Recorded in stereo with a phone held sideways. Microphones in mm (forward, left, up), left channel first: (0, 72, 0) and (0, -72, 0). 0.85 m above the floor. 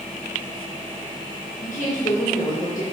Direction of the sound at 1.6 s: 65° left (ahead or behind).